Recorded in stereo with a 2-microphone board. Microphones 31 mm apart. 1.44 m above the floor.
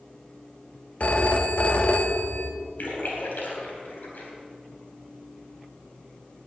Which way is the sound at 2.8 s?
70° left (ahead or behind).